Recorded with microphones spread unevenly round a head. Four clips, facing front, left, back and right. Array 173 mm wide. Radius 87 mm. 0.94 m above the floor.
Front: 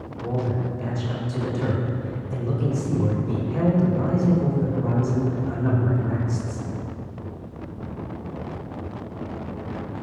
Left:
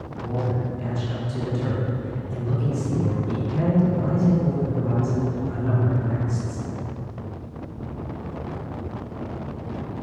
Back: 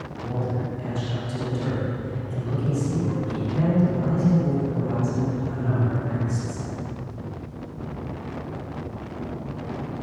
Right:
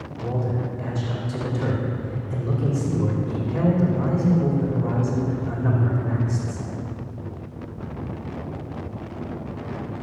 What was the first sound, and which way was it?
A man speaking, 55° right.